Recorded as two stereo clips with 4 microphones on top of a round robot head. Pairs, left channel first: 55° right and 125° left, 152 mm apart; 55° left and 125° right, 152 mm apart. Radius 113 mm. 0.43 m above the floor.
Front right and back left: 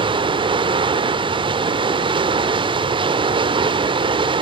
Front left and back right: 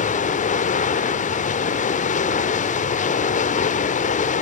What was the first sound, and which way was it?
Running water, 75° left.